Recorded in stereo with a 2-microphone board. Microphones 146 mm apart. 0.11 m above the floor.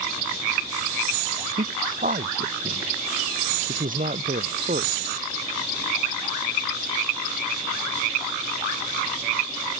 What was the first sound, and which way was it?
A man speaking, 70° right (ahead or behind).